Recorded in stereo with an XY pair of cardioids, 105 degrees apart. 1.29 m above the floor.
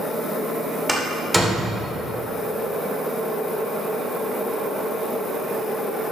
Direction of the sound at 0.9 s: 5° right.